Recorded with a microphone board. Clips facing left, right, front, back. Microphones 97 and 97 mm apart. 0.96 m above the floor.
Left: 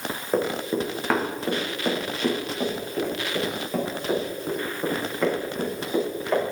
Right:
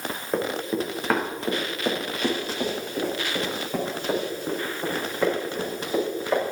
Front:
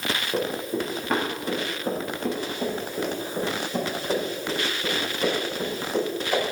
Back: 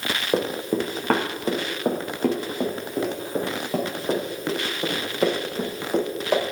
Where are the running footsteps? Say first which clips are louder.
Left 2 dB, back 5 dB; 175° left, 3.5 m; by 6.4 s 170° right, 10 m.